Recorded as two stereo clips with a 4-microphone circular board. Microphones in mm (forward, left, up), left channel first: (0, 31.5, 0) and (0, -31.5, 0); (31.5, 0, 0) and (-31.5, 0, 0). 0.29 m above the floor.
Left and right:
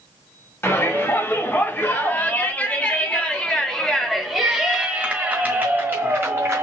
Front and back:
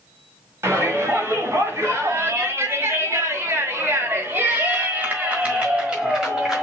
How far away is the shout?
About 2.5 m.